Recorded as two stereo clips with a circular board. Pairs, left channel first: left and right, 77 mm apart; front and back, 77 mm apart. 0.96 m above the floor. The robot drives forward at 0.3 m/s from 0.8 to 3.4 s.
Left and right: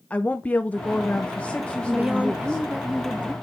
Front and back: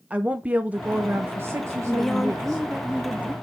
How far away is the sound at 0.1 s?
About 0.7 m.